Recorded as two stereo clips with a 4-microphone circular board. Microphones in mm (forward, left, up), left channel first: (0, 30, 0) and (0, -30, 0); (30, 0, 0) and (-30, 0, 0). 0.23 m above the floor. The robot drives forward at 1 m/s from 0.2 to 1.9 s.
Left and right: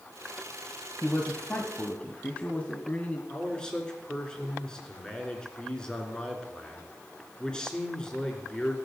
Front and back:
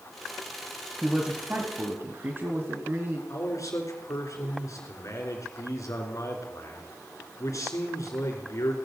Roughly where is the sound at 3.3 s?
Ahead.